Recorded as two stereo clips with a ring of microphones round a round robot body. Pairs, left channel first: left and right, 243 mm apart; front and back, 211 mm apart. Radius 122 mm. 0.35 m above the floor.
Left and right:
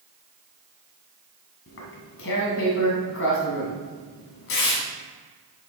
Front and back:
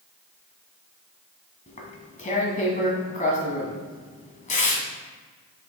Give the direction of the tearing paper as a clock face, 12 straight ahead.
10 o'clock.